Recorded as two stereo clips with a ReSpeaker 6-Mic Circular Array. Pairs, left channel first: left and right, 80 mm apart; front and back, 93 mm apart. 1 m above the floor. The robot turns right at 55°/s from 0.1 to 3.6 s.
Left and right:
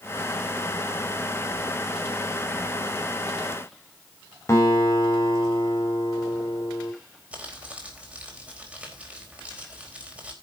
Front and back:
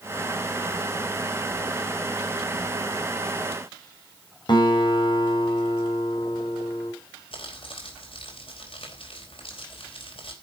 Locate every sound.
4.5 s a guitar: 35° left, 4.5 m
7.3 s crumpling: 15° right, 4 m